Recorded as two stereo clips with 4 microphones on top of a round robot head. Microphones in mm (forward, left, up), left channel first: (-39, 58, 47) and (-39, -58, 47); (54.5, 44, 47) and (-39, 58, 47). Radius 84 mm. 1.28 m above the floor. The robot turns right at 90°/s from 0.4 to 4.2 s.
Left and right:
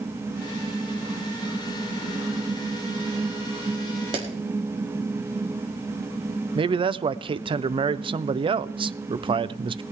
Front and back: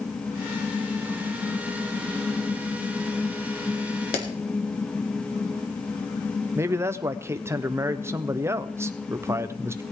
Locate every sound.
4.1 s a clap: 35° right, 2.0 m; by 4.2 s 30° right, 2.0 m
6.5 s a man speaking: 125° right, 0.6 m